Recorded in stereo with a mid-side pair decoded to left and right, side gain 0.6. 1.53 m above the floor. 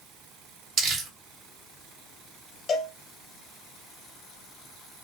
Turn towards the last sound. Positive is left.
turn(degrees=40)